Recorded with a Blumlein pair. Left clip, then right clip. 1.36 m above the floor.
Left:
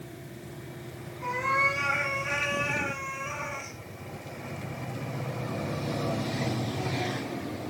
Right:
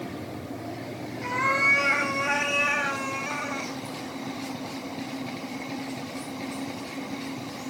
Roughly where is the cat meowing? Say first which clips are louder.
Right 3 dB; ahead right.